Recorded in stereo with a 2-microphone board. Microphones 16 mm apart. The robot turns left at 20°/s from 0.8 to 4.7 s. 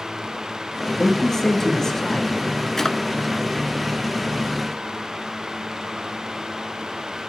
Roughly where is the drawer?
Left.